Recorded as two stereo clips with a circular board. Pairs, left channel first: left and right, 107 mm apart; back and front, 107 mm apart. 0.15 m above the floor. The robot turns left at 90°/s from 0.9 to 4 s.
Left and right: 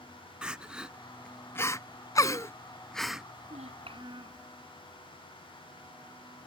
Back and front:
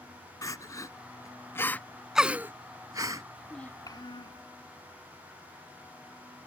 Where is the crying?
165° right; by 3.2 s 15° right.